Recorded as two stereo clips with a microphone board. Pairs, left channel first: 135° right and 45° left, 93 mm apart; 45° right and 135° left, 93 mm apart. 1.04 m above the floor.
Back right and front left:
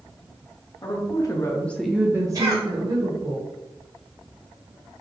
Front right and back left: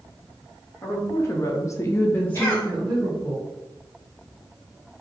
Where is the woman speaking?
105° right, 0.9 m; by 3.4 s 50° left, 1.1 m.